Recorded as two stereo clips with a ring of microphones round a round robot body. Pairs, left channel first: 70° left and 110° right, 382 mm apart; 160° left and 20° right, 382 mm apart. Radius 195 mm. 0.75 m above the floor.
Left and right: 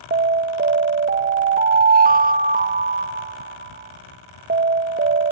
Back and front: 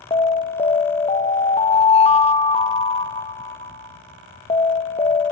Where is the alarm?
145° right, 1.1 m.